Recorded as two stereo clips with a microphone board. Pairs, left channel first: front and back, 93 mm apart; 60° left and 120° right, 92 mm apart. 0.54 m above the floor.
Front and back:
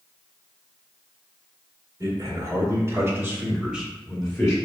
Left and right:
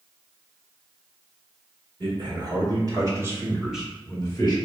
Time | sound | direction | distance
2.0 | a man speaking | 135° right | 1.8 m